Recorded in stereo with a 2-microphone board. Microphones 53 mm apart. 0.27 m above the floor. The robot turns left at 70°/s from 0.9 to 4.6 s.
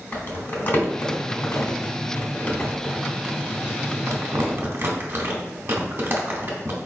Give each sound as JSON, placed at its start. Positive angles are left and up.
{"t": 0.1, "sound": "crumpling", "side_deg": 40, "distance_m": 1.2}